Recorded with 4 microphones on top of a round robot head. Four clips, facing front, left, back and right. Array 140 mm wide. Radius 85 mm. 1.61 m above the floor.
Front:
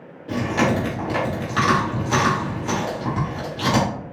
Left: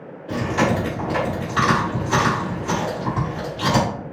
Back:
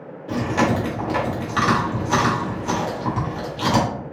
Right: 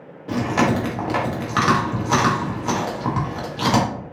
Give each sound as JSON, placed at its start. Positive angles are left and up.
{"t": 0.3, "sound": "chewing", "azimuth_deg": -95, "distance_m": 1.2}